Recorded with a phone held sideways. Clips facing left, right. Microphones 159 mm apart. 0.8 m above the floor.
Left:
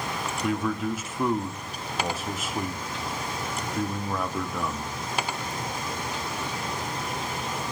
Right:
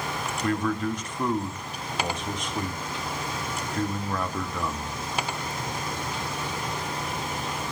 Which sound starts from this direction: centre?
A man speaking, at 0.4 s.